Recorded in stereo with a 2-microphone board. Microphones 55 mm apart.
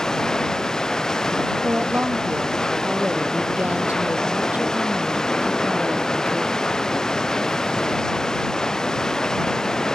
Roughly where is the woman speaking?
Right.